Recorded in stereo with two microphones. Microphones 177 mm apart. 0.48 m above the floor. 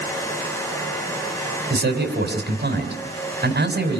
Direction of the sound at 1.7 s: 70° right (ahead or behind).